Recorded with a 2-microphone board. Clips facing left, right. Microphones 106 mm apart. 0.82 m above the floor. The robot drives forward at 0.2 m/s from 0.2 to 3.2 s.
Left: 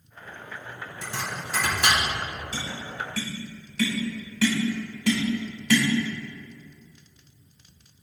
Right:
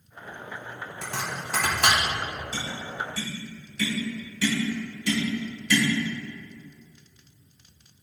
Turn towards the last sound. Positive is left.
turn(degrees=75)  # may be behind; listen again after turning